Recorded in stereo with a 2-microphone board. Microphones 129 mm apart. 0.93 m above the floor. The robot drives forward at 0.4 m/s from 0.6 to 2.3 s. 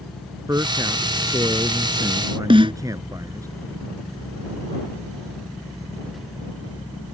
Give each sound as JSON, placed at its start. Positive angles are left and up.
{"t": 0.5, "sound": "a man speaking", "side_deg": -25}
{"t": 2.5, "sound": "a snare drum", "side_deg": -40}